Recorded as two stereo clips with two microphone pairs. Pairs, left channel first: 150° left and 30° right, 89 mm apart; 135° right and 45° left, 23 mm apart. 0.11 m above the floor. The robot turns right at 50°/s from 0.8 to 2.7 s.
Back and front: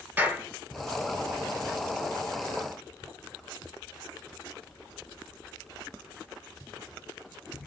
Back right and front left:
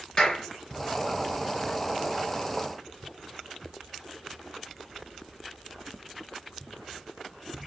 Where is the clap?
90° right, 2 m.